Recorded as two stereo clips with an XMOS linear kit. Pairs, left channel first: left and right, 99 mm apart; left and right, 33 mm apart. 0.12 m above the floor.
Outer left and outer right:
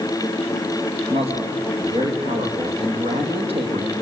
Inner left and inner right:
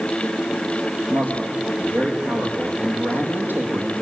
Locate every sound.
1.1 s a man speaking: 70° right (ahead or behind), 6 m; by 3.9 s 75° right (ahead or behind), 4.5 m